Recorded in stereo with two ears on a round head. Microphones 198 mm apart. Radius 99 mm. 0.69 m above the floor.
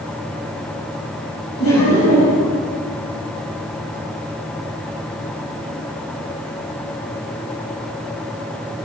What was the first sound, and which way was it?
Laughter, 75° left (ahead or behind).